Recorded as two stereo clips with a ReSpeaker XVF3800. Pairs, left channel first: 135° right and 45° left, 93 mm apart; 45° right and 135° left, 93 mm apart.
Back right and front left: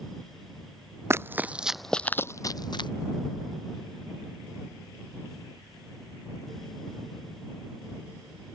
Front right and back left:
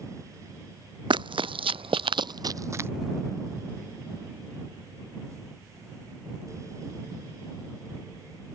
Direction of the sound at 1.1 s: 105° left.